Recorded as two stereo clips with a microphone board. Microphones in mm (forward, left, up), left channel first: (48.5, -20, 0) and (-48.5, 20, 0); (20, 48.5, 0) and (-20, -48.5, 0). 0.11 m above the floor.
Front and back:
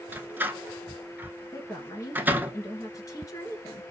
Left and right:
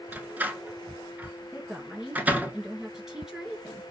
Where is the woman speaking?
35° right, 1.6 m.